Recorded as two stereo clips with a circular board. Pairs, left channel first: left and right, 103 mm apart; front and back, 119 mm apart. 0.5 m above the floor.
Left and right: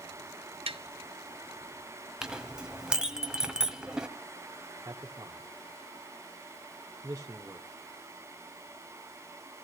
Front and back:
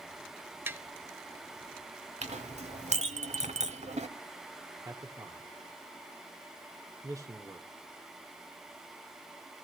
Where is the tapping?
110° right, 1.2 m.